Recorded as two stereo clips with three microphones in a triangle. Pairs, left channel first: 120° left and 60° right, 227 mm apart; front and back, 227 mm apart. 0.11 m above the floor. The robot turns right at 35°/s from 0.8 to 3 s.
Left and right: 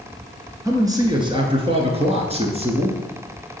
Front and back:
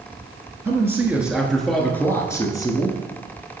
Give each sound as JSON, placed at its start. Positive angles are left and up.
{"t": 0.7, "sound": "a man speaking", "azimuth_deg": -115, "distance_m": 1.1}